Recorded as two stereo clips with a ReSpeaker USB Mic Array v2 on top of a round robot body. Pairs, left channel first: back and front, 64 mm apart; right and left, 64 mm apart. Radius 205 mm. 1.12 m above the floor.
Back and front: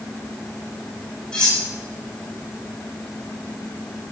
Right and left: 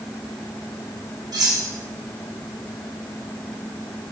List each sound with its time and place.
1.3 s cutlery clinking: 105° left, 1.9 m